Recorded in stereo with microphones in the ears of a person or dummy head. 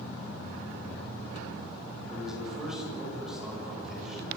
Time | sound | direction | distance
2.1 | a man speaking | centre (ahead or behind) | 7 m